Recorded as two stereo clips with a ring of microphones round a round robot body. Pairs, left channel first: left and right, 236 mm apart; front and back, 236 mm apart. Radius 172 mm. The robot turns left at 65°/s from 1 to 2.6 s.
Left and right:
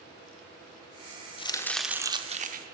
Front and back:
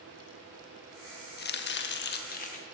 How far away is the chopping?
About 0.7 m.